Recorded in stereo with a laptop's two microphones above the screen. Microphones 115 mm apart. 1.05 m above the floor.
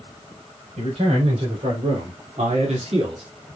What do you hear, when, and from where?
0.8 s a man speaking: 80° right, 4.5 m; by 3.2 s 45° right (ahead or behind), 1.7 m